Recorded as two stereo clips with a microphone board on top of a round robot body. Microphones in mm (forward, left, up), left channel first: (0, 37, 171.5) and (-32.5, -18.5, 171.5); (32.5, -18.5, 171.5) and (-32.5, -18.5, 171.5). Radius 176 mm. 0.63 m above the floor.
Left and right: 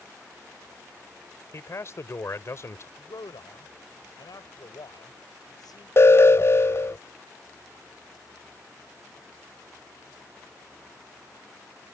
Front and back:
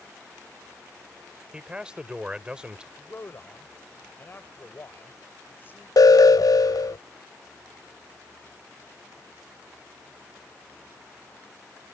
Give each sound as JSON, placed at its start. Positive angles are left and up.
{"t": 1.5, "sound": "a man speaking", "azimuth_deg": 105}
{"t": 3.0, "sound": "a man speaking", "azimuth_deg": 60}
{"t": 6.0, "sound": "an alarm", "azimuth_deg": 15}